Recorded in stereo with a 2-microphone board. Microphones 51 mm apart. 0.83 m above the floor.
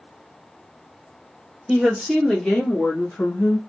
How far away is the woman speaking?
About 1.4 m.